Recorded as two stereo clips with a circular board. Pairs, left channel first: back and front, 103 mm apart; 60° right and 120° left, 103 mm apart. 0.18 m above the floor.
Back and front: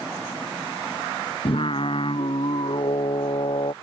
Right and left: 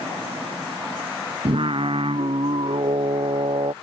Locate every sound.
1.4 s singing: 150° left